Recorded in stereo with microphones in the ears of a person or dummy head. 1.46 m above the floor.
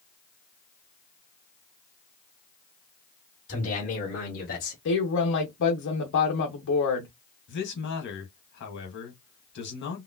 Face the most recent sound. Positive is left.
turn(degrees=65)  # may be behind; listen again after turning